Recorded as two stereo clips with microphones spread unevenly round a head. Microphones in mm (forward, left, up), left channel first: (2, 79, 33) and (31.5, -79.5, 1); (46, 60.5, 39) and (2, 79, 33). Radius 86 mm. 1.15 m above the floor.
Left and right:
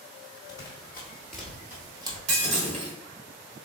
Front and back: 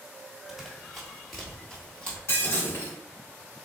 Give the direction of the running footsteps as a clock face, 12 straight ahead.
10 o'clock.